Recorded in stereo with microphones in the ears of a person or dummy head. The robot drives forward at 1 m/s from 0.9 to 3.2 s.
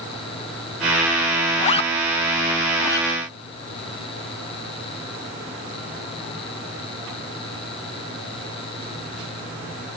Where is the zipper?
35° left (ahead or behind); by 3.1 s 15° left (ahead or behind).